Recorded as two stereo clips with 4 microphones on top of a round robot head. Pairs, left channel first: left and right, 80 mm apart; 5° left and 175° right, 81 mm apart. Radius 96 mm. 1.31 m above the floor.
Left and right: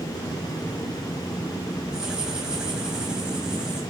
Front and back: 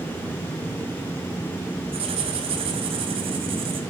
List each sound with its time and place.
1.9 s writing: 175° right, 2 m